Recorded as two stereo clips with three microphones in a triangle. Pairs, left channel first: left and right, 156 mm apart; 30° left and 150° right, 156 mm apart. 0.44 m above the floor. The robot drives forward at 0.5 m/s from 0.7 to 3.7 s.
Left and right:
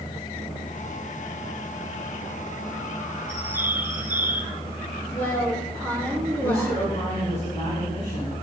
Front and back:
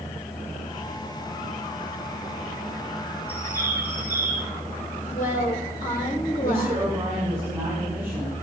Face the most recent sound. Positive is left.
turn(degrees=140)